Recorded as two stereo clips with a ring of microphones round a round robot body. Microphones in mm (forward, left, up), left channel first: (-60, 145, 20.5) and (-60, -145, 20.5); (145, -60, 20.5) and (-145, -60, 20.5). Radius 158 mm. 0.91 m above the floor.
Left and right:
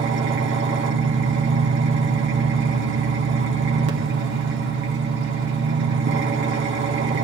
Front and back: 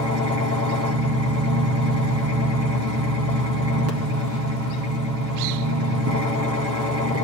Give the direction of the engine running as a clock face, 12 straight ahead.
5 o'clock.